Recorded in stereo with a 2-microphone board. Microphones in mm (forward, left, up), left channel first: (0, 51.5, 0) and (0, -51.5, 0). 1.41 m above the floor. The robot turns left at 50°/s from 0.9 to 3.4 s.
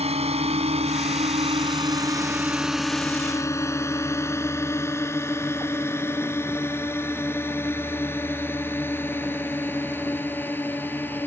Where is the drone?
85° right; by 11.3 s 20° left (ahead or behind).